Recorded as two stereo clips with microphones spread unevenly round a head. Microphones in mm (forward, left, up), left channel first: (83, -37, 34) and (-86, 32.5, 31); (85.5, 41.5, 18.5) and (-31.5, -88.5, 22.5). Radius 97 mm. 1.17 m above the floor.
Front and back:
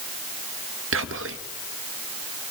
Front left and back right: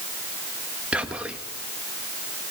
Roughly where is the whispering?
Behind left.